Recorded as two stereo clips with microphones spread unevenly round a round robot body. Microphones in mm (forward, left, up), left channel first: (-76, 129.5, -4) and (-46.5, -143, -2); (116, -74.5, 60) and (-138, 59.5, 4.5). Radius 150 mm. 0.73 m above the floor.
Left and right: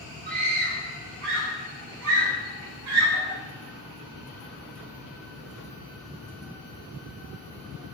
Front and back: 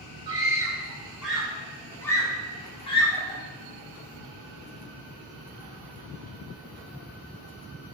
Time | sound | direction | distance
0.3 | a scream | 140° right | 2.5 m